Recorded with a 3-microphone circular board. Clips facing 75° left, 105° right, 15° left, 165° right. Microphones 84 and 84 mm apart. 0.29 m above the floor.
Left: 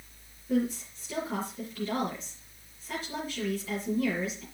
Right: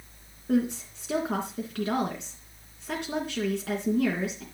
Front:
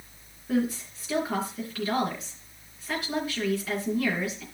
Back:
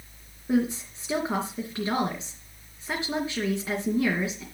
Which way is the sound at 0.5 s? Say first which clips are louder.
Right 3 dB, back 2 dB; 105° right.